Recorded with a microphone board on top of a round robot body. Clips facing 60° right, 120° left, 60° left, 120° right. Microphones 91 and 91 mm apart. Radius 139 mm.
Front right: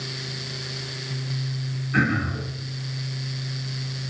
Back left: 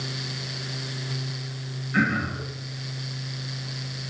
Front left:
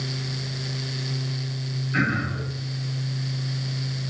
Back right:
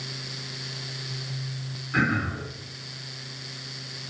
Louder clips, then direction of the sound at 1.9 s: Front right 1 dB, even; 60° right.